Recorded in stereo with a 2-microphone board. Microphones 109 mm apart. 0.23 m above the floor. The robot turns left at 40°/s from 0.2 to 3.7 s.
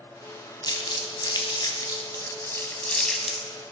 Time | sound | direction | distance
0.6 | crumpling | 40° left (ahead or behind) | 1.2 m